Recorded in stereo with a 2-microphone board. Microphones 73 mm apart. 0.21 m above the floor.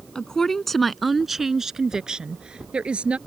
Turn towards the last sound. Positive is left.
turn(degrees=-15)  # may be behind; listen again after turning